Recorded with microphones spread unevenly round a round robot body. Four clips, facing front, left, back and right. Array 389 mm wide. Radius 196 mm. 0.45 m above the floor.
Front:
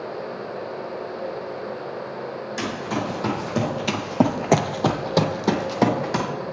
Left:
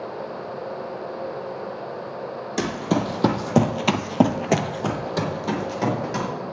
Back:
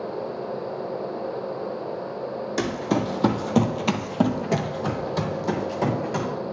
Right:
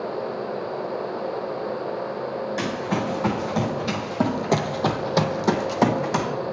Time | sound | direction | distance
2.6 | running footsteps | 125° left | 1.1 m